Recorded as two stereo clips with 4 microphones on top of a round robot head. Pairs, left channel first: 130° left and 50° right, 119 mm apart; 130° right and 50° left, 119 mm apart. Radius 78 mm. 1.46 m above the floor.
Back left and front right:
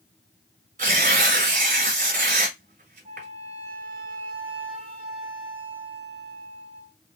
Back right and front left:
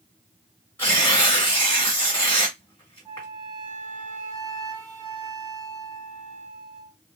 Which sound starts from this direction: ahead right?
Tearing paper, at 0.8 s.